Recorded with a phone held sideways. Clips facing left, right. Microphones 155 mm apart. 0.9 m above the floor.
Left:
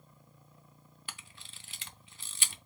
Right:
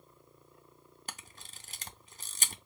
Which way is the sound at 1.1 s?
40° right (ahead or behind).